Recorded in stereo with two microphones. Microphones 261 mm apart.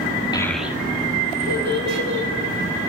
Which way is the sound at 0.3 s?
15° left (ahead or behind).